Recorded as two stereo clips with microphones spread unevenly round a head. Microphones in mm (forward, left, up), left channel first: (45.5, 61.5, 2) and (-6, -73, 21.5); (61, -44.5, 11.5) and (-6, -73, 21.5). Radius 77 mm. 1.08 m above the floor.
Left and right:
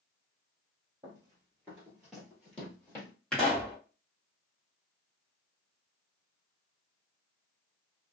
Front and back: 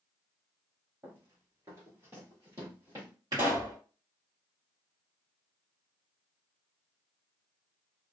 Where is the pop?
150° left, 1.2 m.